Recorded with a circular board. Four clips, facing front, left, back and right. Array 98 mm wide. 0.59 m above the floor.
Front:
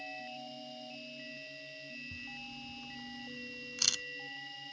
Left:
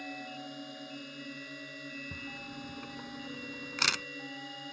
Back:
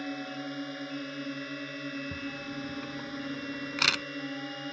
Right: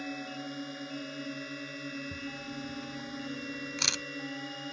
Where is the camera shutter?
160° left.